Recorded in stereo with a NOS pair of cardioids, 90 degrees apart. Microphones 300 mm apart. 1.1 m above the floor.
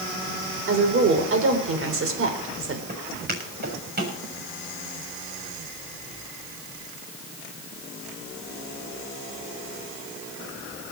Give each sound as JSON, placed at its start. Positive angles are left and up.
{"t": 0.7, "sound": "a woman speaking", "azimuth_deg": -45, "distance_m": 4.0}
{"t": 2.9, "sound": "footsteps", "azimuth_deg": -35, "distance_m": 7.0}